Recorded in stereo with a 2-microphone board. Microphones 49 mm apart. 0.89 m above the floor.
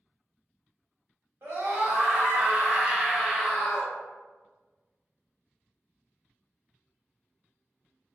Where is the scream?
55° right (ahead or behind), 1.6 m; by 3.9 s 20° left (ahead or behind), 0.9 m.